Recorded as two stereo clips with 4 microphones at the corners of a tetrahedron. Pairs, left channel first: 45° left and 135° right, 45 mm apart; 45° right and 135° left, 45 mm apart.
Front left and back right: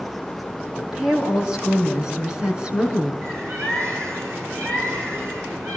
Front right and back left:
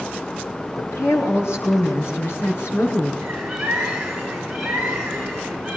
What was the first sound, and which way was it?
A woman speaking, 60° right.